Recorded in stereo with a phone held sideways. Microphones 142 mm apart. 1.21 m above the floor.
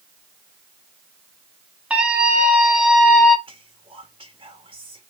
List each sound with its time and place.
1.9 s a scream: 10° right (ahead or behind), 4 m; by 3.4 s centre (ahead or behind), 3 m
3.5 s whispering: 45° right (ahead or behind), 3 m